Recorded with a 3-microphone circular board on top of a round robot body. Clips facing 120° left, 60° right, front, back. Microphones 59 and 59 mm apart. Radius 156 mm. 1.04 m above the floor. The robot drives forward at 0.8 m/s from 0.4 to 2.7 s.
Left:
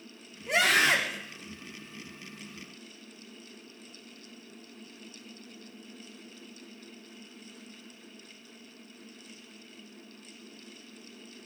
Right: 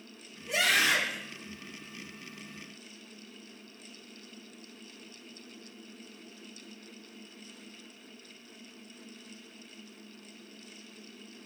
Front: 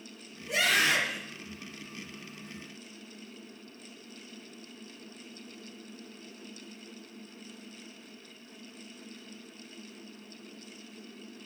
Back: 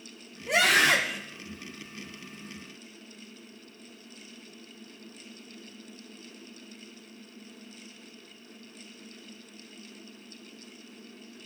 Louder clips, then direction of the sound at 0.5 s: Left 3 dB, back 4 dB; 160° left.